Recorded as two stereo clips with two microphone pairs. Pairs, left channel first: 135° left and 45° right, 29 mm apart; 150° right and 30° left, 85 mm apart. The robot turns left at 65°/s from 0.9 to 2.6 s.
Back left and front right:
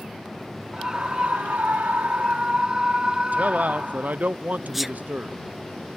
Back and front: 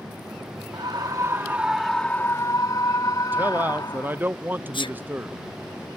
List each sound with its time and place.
0.7 s a scream: straight ahead; by 4.2 s 110° right
3.3 s a man speaking: 35° right
4.7 s a sneeze: 135° right